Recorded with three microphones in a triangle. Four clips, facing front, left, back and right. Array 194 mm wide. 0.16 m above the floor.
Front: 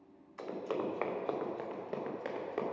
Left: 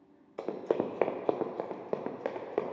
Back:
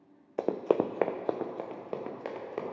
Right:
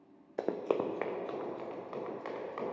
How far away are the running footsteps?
About 0.6 m.